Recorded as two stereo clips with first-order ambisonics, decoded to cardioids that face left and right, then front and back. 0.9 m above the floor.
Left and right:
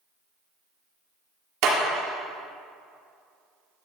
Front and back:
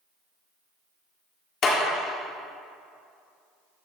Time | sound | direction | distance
1.6 | a clap | 60° right | 2 m